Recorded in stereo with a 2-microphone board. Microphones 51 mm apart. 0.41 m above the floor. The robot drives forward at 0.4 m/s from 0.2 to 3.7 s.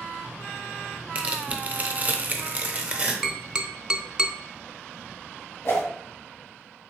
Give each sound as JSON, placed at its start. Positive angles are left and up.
{"t": 1.1, "sound": "tearing paper", "side_deg": -25, "distance_m": 0.6}
{"t": 3.2, "sound": "tapping", "side_deg": -15, "distance_m": 0.6}
{"t": 5.7, "sound": "a whoosh", "side_deg": 55, "distance_m": 1.7}